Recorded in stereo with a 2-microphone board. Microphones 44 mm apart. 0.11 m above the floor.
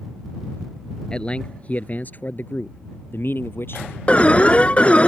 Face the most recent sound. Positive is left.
turn(degrees=30)  # may be behind; listen again after turning